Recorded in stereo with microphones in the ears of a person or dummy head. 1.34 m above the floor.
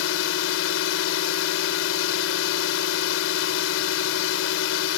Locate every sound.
0.0 s a drone: 75° left (ahead or behind)